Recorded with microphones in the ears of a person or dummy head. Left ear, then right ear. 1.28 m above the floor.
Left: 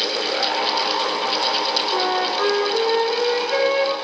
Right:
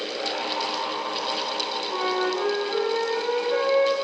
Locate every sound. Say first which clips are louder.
1.9 s a flute: left 5 dB; 75° left (ahead or behind), 9.5 m